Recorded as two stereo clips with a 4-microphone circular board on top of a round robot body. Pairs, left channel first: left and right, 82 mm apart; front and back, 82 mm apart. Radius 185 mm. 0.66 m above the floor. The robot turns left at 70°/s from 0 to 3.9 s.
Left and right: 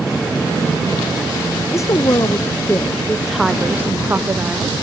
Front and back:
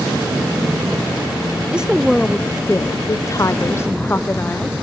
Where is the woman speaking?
110° left, 0.7 m; by 4.8 s 40° right, 0.7 m.